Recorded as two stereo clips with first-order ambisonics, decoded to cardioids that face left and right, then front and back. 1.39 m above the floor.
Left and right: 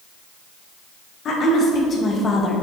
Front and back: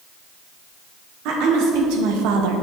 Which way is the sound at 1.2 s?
150° left.